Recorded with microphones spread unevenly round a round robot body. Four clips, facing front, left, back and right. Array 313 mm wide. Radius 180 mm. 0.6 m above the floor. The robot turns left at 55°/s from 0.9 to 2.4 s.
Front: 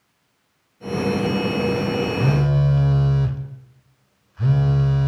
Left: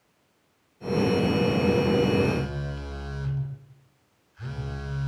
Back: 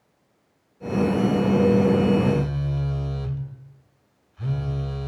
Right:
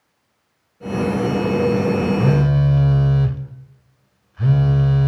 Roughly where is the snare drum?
No snare drum in this recording.